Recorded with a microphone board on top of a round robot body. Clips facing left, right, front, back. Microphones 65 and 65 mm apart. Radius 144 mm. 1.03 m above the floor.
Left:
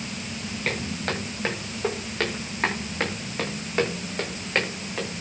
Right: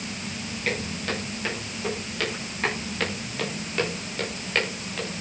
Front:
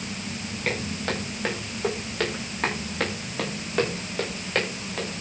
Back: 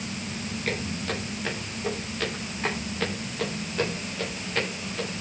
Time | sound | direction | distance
0.7 | footsteps | 45° left | 8.5 m